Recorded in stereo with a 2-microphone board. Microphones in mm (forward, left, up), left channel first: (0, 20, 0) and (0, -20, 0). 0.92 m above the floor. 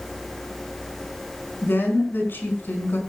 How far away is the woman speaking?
About 5 m.